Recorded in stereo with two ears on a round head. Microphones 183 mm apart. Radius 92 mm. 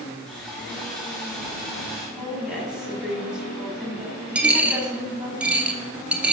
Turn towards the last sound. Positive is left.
turn(degrees=-5)  # may be behind; listen again after turning